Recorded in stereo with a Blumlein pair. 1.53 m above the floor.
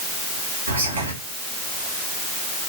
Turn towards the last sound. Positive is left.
turn(degrees=-70)